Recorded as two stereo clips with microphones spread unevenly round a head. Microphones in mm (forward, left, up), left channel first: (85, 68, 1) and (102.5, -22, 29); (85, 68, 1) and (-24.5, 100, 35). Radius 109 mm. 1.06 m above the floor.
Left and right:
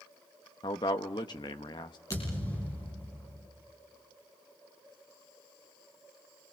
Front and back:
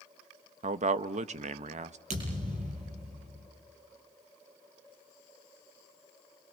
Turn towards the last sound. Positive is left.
turn(degrees=180)